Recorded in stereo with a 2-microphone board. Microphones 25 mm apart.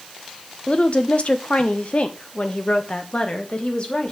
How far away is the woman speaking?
About 0.9 m.